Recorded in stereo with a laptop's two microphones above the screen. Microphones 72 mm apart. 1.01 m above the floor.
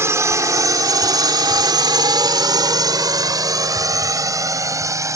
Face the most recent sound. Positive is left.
turn(degrees=-45)  # may be behind; listen again after turning